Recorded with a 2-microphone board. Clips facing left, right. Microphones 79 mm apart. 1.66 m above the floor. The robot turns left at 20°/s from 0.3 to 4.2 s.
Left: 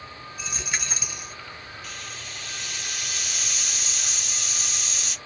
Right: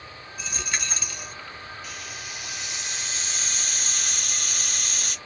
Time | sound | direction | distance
0.4 | a dropped coin | centre (ahead or behind) | 2 m
1.8 | a hiss | 5° right | 0.9 m